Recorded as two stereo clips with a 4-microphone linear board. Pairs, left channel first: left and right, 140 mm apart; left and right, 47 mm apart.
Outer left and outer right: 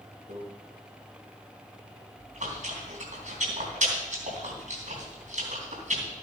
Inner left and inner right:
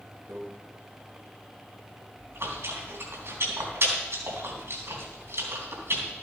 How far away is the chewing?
About 3.5 m.